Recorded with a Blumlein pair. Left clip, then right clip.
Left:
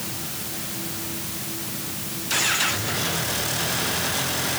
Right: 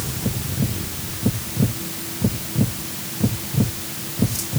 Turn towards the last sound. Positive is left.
No sound to turn to.